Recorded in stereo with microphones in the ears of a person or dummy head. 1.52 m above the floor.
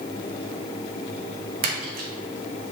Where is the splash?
45° right (ahead or behind), 0.5 m.